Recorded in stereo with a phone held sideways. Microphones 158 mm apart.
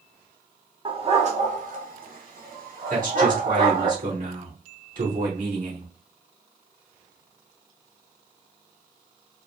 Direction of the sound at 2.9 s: 55° right (ahead or behind).